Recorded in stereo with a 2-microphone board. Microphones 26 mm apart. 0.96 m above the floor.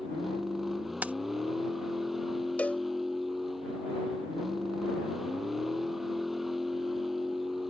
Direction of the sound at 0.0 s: 5° right (ahead or behind).